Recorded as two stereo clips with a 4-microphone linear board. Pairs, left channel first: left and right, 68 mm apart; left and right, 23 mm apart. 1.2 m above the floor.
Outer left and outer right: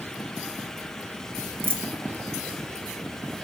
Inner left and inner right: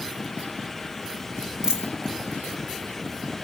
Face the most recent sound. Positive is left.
turn(degrees=-30)  # may be behind; listen again after turning